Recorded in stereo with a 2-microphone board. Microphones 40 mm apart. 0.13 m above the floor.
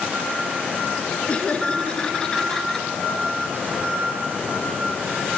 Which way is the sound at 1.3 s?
30° left (ahead or behind).